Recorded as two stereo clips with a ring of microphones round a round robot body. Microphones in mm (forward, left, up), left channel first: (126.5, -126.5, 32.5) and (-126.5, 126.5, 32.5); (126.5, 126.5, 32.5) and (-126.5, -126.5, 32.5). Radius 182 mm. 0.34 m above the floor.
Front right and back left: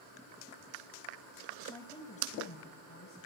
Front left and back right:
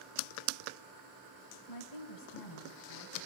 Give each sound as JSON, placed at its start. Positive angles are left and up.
{"t": 1.7, "sound": "a woman speaking", "azimuth_deg": 40, "distance_m": 2.5}